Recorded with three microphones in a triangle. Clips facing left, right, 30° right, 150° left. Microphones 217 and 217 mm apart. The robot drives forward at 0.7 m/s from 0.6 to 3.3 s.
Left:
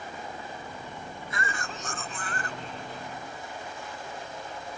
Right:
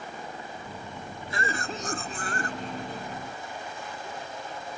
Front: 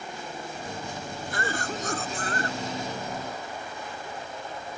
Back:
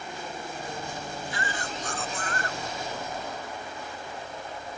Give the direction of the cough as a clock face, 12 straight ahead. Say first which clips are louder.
Right 5 dB, front 3 dB; 1 o'clock.